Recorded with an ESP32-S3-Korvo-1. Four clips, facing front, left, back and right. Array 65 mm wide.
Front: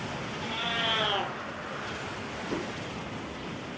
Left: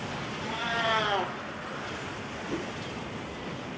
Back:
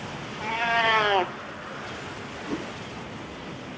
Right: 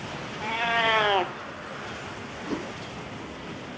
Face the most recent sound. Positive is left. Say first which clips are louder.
# right 3 dB, back 2 dB
turn(degrees=-100)